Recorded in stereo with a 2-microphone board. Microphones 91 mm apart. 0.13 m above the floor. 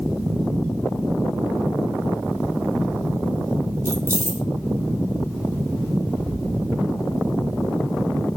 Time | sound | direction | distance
3.9 | keys jangling | 30° right (ahead or behind) | 1.8 m